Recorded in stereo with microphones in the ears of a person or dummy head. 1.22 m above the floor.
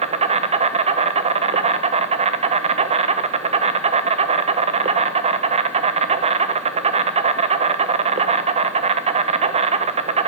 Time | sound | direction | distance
0.0 | an insect | 30° right (ahead or behind) | 0.9 m